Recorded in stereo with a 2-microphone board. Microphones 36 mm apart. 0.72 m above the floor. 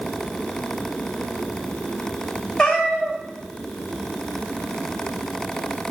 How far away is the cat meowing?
About 1.1 m.